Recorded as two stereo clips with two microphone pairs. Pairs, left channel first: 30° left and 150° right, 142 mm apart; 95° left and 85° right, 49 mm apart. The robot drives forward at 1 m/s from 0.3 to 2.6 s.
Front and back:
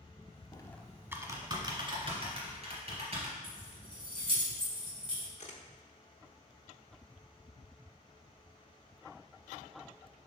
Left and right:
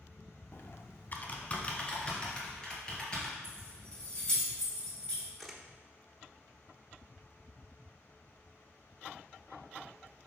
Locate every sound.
0.5 s typing on a keyboard: 85° left, 0.6 m; by 3.3 s 165° left, 2 m
3.4 s keys jangling: 160° left, 2.5 m
5.4 s a camera shutter: 5° left, 0.9 m